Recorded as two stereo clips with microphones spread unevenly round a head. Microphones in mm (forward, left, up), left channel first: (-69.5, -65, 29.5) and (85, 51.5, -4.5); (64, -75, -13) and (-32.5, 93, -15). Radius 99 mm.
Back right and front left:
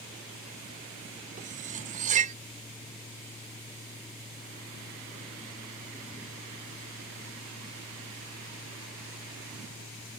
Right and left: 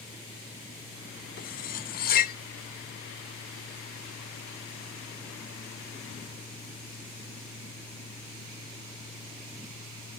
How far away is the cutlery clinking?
About 0.6 m.